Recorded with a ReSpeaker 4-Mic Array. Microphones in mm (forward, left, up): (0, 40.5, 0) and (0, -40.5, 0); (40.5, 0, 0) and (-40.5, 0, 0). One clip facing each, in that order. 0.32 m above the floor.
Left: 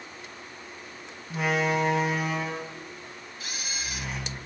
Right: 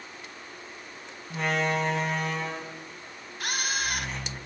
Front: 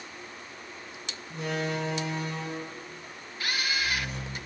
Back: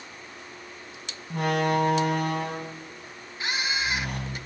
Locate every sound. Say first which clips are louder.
1.3 s a door slam: left 2 dB, back 7 dB; 175° left, 2 m
3.4 s a camera shutter: right 8 dB, back 2 dB; 115° right, 0.7 m